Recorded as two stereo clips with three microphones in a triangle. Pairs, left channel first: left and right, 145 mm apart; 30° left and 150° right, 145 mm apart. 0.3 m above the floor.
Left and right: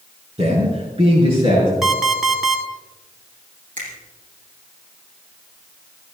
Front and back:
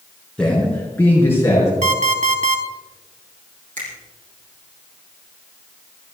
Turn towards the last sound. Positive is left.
turn(degrees=-120)